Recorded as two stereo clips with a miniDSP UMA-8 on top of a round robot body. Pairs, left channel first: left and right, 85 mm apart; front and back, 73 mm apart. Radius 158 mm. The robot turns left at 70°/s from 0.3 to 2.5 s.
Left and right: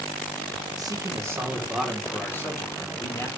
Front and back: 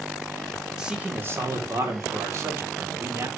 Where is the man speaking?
100° right, 1.8 m; by 3.3 s 140° left, 1.8 m.